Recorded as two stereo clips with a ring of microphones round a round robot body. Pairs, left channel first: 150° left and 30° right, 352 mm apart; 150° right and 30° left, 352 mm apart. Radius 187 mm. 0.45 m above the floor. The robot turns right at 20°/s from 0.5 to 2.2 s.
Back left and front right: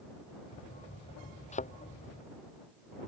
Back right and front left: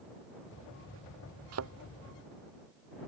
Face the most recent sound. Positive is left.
turn(degrees=90)